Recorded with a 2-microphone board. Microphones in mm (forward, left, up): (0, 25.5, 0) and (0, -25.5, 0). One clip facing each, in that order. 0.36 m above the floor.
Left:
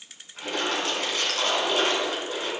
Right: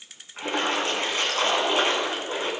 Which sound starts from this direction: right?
A splash, at 0.4 s.